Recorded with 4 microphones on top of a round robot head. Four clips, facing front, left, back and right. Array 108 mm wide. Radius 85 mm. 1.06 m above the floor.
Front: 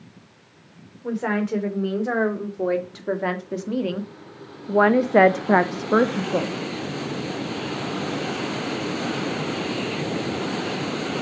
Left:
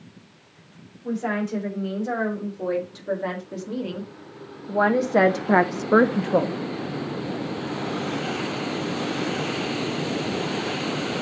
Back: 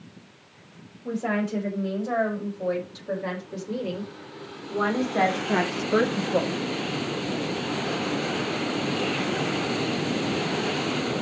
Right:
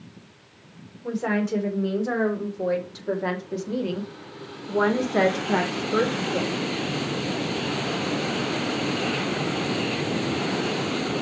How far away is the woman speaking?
About 4 m.